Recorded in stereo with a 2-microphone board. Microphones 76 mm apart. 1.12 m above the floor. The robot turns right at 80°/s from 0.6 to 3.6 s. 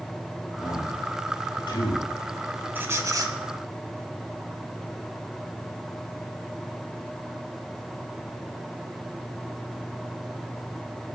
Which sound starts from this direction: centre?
A man speaking, at 0.6 s.